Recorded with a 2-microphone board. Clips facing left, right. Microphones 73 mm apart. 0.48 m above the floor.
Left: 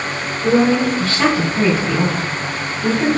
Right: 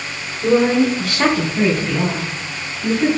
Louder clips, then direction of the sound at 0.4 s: Even; 30° right (ahead or behind).